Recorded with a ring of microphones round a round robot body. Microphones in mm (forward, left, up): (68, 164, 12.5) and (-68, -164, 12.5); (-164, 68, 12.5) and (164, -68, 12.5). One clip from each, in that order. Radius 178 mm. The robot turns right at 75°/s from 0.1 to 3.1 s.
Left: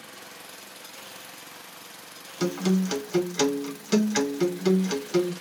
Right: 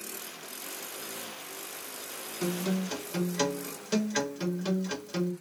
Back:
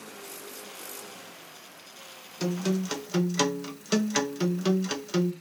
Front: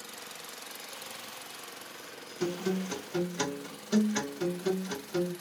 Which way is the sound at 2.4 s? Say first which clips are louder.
Left 6 dB, back 2 dB; 90° left.